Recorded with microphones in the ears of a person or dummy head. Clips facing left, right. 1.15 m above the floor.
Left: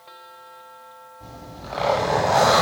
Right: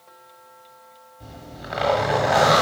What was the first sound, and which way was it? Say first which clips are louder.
A zipper: even; 15° right (ahead or behind).